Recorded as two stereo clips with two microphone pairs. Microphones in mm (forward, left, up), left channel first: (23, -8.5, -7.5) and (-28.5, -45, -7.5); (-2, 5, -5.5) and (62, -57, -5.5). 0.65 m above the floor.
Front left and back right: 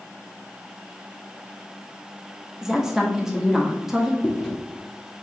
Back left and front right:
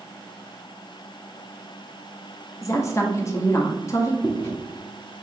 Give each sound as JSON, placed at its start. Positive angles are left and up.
{"t": 2.6, "sound": "a woman speaking", "azimuth_deg": 145, "distance_m": 0.6}
{"t": 4.2, "sound": "chewing", "azimuth_deg": 100, "distance_m": 0.9}